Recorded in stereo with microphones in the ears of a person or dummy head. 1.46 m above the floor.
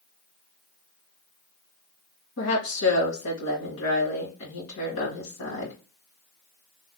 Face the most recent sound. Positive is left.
turn(degrees=75)  # may be behind; listen again after turning